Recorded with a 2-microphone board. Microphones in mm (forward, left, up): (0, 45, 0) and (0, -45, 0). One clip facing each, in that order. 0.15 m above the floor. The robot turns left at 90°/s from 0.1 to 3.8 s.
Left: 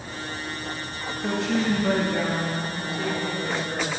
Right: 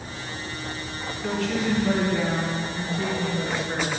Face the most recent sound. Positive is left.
turn(degrees=-70)